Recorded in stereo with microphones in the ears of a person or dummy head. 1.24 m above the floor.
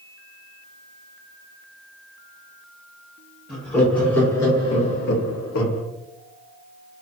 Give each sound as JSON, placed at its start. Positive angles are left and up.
{"t": 3.5, "sound": "laughter", "side_deg": -5, "distance_m": 1.8}